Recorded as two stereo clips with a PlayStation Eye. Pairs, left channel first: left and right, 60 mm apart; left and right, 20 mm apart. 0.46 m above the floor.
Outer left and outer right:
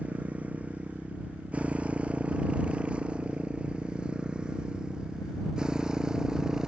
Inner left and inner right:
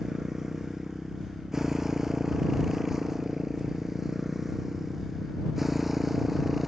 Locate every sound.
0.0 s a motorcycle: 20° right (ahead or behind); by 6.7 s 10° right (ahead or behind)